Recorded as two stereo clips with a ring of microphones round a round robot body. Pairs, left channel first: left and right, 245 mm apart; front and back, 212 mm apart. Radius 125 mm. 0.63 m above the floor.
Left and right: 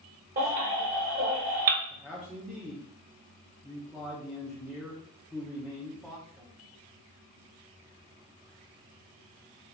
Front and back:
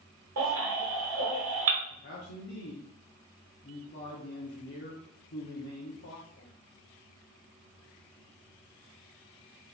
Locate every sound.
0.4 s a baby crying: 145° right, 1.2 m
1.9 s a man speaking: straight ahead, 0.8 m